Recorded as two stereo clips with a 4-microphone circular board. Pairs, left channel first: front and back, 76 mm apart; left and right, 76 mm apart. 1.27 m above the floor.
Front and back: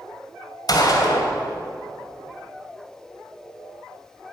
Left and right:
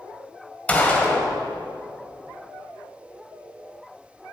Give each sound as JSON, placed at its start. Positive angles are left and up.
{"t": 0.7, "sound": "a gunshot", "azimuth_deg": 20, "distance_m": 2.0}